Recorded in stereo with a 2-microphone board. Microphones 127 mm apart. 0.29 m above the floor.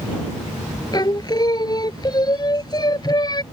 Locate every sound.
0.9 s singing: 35° left (ahead or behind)